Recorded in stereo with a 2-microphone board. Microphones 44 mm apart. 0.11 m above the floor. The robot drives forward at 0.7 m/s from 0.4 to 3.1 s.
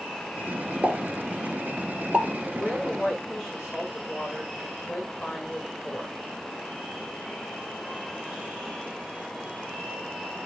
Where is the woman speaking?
10° left (ahead or behind), 8 m.